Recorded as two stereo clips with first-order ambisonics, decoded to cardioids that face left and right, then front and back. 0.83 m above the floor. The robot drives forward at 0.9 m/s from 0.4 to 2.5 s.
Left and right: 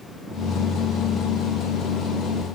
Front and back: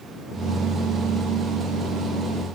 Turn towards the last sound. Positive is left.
No sound to turn to.